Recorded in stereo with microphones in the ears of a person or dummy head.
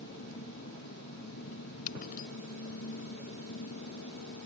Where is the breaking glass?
50° left (ahead or behind).